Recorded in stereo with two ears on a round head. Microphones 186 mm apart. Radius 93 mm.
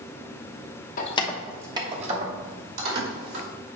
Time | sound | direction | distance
1.0 | keys jangling | 40° left (ahead or behind) | 0.9 m